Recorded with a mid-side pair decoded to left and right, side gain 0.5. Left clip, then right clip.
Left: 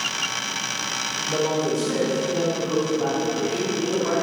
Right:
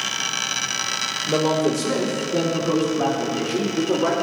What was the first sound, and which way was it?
A man speaking, 40° right.